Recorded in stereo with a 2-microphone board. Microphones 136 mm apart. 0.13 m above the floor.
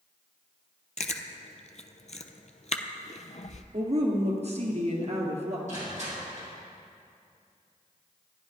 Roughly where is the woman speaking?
Right.